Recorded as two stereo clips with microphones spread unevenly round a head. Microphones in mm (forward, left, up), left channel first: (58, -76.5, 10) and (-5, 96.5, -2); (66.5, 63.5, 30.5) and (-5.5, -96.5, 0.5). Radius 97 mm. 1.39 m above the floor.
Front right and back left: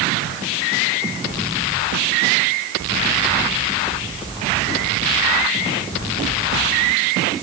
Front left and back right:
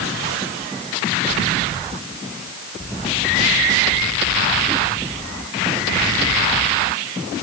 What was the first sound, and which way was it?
Only background noise.